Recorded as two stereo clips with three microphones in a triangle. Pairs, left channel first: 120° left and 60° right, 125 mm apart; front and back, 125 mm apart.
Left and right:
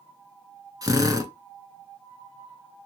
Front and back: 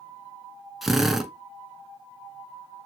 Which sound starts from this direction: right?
A drill, at 0.8 s.